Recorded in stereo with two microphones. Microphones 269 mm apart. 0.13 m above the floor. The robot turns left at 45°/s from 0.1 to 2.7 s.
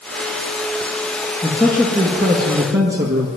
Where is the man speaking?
Straight ahead, 1.5 m; by 3.3 s 60° right, 1.5 m.